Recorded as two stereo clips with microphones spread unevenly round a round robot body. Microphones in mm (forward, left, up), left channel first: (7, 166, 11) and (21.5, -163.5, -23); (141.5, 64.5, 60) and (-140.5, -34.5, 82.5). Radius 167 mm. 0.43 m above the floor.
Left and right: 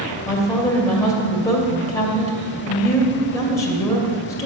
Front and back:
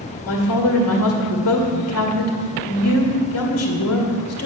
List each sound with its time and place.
0.2 s a woman speaking: 10° left, 2 m